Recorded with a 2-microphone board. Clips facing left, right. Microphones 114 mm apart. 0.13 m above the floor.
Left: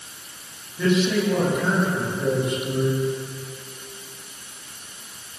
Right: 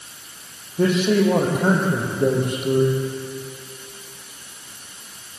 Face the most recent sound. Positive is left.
turn(degrees=-55)  # may be behind; listen again after turning